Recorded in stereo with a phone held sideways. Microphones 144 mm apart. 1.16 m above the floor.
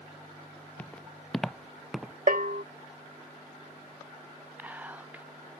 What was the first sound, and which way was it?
Footsteps, 10° left (ahead or behind).